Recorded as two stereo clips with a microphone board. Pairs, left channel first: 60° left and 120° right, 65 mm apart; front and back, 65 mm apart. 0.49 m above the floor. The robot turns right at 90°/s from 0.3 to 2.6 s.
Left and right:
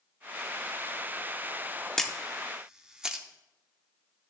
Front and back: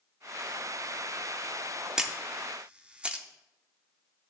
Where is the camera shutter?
130° left, 0.8 m; by 3.2 s 175° right, 0.8 m.